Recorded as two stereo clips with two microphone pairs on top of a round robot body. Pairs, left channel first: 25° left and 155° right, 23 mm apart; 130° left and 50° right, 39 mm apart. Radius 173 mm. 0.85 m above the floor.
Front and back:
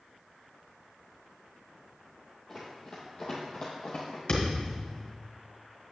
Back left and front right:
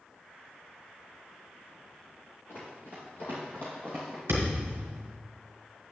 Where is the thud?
20° right, 1.5 m.